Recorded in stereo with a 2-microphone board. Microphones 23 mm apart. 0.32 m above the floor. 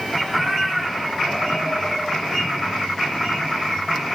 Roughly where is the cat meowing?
Centre.